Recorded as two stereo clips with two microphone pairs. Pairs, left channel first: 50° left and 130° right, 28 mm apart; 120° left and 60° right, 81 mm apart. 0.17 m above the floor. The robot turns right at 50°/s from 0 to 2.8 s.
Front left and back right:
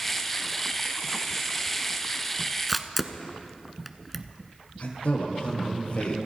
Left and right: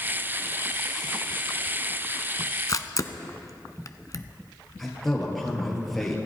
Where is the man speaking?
30° left, 3 m.